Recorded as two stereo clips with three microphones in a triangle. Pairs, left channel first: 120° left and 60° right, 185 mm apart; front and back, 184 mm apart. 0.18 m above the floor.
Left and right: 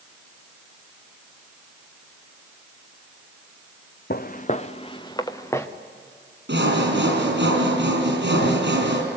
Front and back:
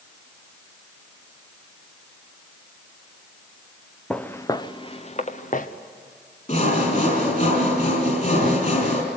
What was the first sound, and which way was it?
Footsteps, 85° left.